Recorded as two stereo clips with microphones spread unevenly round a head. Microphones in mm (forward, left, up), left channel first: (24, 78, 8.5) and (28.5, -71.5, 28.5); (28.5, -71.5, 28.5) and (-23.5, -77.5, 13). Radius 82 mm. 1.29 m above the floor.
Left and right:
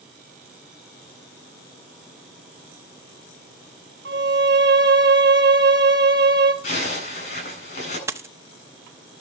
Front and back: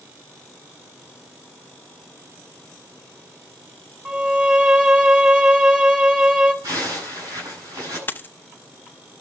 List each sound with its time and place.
4.0 s a violin: 100° right, 3 m
6.6 s a zipper: 145° left, 9 m
8.1 s a dropped coin: 25° right, 1.0 m